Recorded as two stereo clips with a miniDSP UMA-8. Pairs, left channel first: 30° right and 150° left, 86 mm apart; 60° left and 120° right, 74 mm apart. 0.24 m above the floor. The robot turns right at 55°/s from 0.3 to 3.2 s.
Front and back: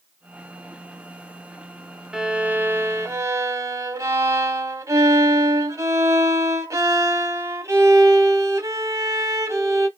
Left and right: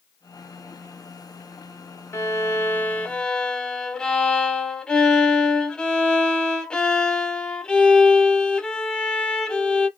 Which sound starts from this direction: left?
A violin, at 2.1 s.